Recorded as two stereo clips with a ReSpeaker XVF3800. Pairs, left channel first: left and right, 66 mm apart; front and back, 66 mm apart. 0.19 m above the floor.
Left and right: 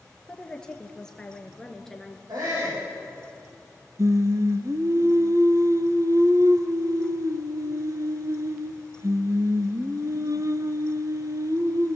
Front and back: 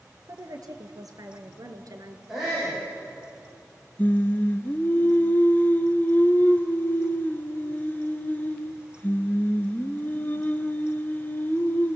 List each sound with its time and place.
0.3 s a woman speaking: 170° left, 3.5 m; by 2.2 s 175° left, 2.5 m
2.3 s a shout: 95° right, 9.5 m
4.0 s singing: 60° right, 1.2 m